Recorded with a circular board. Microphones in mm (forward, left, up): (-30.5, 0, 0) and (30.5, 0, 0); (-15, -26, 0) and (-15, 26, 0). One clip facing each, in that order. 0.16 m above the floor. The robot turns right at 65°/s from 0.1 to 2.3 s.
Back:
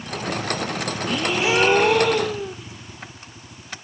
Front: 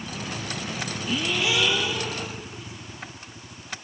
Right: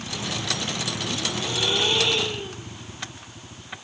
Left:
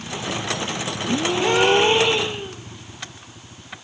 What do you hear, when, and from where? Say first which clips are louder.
1.1 s a gasp: back 4 dB, left 14 dB; 90° left, 1.2 m; by 2.5 s 170° left, 1.2 m